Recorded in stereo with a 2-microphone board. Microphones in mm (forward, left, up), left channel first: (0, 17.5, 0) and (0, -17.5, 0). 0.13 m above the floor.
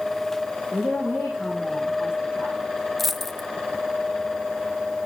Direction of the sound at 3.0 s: 5° left (ahead or behind).